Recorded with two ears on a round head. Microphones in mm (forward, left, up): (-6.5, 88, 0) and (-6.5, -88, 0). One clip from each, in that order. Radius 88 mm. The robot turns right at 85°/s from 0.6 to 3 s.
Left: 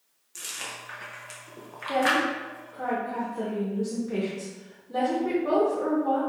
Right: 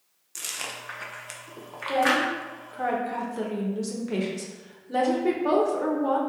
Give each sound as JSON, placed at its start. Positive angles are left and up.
{"t": 0.3, "sound": "chewing", "side_deg": -15, "distance_m": 0.5}
{"t": 1.9, "sound": "a woman speaking", "azimuth_deg": 165, "distance_m": 1.0}